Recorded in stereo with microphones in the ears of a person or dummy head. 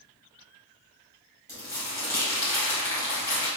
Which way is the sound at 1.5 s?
15° left (ahead or behind).